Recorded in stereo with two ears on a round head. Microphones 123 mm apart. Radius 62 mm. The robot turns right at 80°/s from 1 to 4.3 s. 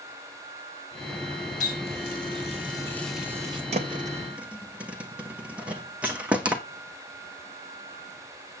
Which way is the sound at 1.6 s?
60° left (ahead or behind).